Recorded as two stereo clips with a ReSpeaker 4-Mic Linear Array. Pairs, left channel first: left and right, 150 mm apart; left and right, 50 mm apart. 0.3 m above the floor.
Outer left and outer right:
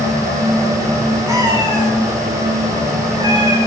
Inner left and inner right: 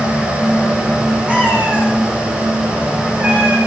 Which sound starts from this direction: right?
A cat meowing, at 1.3 s.